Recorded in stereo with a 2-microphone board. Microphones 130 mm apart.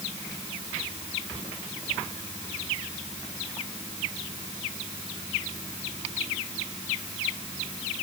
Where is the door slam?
I don't hear a door slam.